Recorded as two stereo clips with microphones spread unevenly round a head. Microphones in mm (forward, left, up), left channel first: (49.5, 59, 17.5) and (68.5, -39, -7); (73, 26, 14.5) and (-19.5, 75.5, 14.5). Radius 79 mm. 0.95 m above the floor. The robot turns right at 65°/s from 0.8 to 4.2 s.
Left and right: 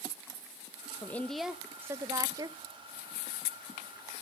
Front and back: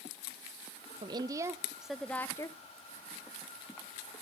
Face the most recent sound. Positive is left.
turn(degrees=30)